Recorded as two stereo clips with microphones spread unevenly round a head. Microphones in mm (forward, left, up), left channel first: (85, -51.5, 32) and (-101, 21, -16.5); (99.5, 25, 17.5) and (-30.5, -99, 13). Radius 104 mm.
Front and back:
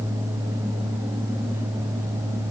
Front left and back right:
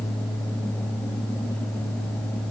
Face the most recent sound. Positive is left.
No sound to turn to.